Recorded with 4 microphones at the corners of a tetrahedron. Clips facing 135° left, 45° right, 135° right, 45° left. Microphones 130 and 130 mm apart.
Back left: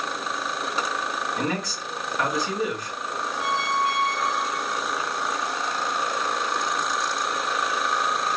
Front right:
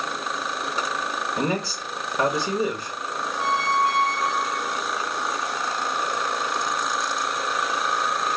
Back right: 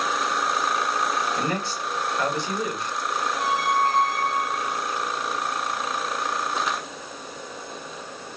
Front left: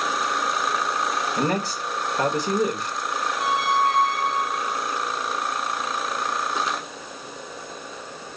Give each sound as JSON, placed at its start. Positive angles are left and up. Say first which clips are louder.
{"t": 1.4, "sound": "a man speaking", "louder": "front right 2 dB, front left 3 dB", "azimuth_deg": 5, "distance_m": 1.1}
{"t": 3.4, "sound": "a squeak", "louder": "front right 3 dB, front left 1 dB", "azimuth_deg": -85, "distance_m": 0.9}